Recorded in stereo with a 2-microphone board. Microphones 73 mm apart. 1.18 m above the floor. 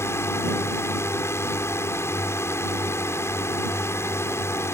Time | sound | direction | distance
0.0 | a drone | 40° left (ahead or behind) | ?